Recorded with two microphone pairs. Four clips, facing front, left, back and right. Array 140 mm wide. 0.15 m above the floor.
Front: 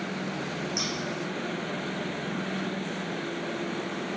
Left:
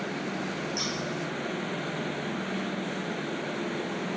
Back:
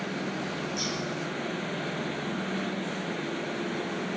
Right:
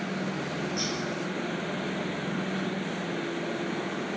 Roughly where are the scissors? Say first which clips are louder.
Right 1 dB, even; ahead left.